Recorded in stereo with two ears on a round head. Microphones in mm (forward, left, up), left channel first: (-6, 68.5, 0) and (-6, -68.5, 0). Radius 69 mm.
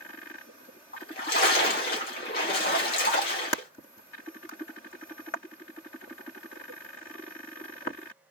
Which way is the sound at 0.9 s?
65° left (ahead or behind).